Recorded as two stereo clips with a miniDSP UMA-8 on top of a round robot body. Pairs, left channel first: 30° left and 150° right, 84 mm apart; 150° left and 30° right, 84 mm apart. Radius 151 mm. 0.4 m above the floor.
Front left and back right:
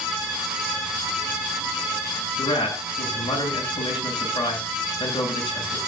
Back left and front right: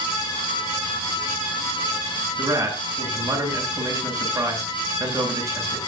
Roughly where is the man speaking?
Ahead left.